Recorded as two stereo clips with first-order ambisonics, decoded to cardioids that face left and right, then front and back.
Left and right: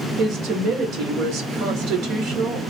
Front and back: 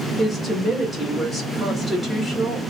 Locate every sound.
0.2 s a woman speaking: 90° right, 1.9 m